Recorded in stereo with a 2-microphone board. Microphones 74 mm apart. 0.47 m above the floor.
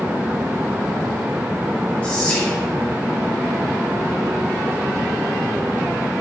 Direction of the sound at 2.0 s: 20° left (ahead or behind).